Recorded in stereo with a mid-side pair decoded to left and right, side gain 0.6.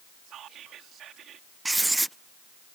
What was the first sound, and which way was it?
Whispering, 55° right.